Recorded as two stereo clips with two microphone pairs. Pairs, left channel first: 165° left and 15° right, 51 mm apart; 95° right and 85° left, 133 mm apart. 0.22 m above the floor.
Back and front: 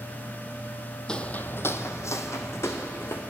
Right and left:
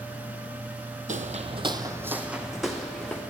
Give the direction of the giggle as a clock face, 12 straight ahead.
No giggle in this recording.